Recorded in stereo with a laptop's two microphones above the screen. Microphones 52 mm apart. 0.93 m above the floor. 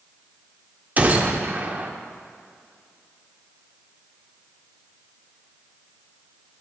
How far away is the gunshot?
About 1.3 m.